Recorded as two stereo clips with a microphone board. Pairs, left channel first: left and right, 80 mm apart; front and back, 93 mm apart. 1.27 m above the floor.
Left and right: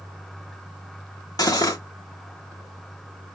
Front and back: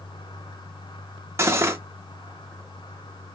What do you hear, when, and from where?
1.4 s cutlery clinking: 125° left, 1.1 m